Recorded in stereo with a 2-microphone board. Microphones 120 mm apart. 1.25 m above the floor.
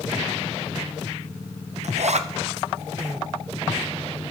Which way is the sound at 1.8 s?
70° right (ahead or behind).